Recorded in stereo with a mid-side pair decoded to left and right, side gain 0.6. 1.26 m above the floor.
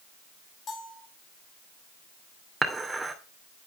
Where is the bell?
40° left, 4.5 m.